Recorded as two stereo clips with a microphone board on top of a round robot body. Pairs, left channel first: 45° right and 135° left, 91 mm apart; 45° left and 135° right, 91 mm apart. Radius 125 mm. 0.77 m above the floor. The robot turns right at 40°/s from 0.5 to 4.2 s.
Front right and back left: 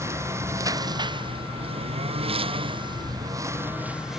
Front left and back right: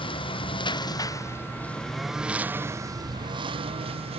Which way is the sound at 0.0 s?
75° left.